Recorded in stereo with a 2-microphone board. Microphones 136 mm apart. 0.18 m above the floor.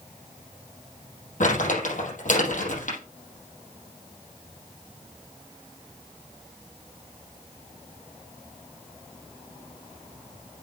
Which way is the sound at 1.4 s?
70° left (ahead or behind).